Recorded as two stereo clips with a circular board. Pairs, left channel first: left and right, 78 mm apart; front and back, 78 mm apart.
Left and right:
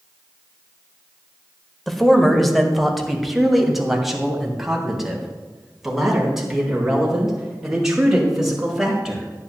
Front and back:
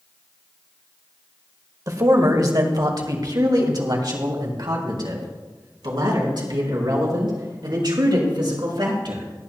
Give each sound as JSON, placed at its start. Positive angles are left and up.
{"t": 1.9, "sound": "a man speaking", "azimuth_deg": 175, "distance_m": 1.5}